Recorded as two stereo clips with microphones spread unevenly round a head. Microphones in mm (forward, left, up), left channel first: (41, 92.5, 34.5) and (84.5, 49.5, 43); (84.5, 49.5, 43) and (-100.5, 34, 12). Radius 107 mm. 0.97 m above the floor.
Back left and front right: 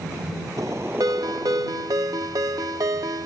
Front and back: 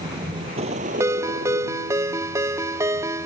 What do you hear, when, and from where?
0.0 s a vehicle: 100° right; by 3.3 s 160° right
1.0 s a ringtone: 100° right